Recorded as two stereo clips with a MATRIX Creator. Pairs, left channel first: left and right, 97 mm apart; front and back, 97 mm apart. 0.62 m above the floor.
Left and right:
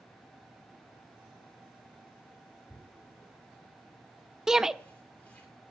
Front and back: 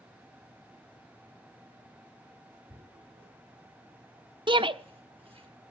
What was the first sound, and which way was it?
Tearing paper, 165° left.